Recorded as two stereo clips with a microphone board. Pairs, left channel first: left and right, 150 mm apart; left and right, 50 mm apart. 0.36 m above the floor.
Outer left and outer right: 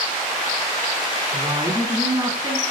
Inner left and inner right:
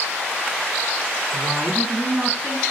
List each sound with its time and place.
1.3 s a woman speaking: 25° right (ahead or behind), 3.5 m; by 2.6 s 10° right (ahead or behind), 3 m